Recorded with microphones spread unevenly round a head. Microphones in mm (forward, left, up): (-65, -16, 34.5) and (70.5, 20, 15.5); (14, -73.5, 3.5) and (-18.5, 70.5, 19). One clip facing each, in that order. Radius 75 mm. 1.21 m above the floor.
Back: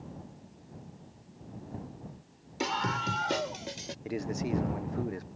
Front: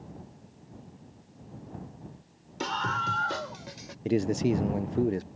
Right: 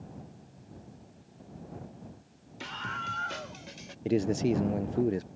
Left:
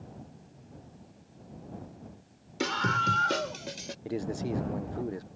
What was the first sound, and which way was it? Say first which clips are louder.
A scream: even, left 10 dB; 115° left.